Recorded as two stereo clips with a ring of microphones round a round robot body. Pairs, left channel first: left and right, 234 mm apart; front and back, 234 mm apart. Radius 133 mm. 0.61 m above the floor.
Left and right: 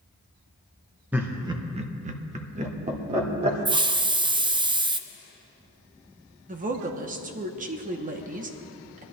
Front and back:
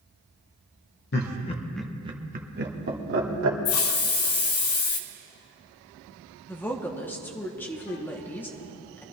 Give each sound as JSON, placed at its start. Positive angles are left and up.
{"t": 1.1, "sound": "laughter", "azimuth_deg": -10, "distance_m": 1.2}
{"t": 3.6, "sound": "a hiss", "azimuth_deg": -20, "distance_m": 0.5}
{"t": 6.5, "sound": "a woman speaking", "azimuth_deg": -75, "distance_m": 1.0}